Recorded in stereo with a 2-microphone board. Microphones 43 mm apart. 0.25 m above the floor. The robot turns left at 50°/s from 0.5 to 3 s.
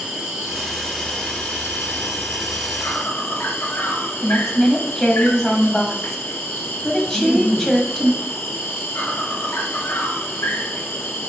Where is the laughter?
40° left (ahead or behind), 2 m.